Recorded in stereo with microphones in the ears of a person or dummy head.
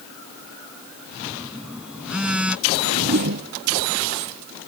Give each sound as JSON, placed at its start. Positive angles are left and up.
{"t": 1.2, "sound": "a phone buzzing", "side_deg": -5}
{"t": 2.7, "sound": "a whoosh", "side_deg": -50}